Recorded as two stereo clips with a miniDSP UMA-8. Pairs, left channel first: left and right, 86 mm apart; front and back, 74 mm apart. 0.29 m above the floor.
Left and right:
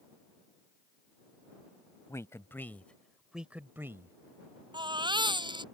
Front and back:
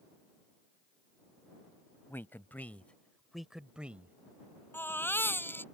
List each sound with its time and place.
2.1 s a man speaking: 50° left; by 4.2 s 125° right
4.7 s a baby crying: 60° right